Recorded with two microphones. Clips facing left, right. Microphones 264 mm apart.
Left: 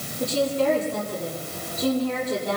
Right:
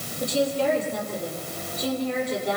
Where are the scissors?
No scissors in this recording.